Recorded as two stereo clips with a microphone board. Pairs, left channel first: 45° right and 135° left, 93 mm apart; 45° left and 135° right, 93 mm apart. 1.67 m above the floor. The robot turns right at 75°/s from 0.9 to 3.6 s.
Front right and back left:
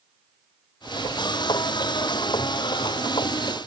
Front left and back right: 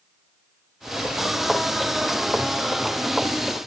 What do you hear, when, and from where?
Only background noise.